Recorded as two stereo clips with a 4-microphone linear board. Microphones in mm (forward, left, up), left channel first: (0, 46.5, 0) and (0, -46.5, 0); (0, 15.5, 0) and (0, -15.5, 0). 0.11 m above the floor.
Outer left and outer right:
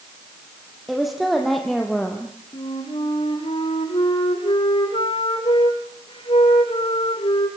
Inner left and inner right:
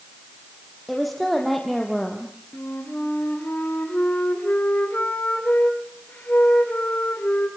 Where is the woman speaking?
Centre (ahead or behind), 5.5 m; by 2.4 s 5° left (ahead or behind), 3 m.